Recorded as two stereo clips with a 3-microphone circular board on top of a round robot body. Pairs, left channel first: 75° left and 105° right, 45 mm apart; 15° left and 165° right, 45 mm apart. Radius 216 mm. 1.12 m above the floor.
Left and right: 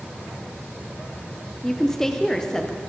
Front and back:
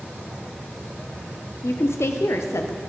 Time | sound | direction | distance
1.6 | a woman speaking | 5° right | 0.8 m